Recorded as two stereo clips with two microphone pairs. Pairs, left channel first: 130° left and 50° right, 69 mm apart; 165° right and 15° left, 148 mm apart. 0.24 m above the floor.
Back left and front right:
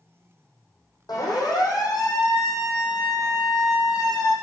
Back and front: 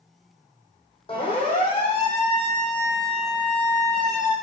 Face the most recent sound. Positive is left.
turn(degrees=155)